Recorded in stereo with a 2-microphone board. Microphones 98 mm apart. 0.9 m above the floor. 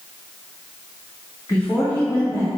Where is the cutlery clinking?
No cutlery clinking in this recording.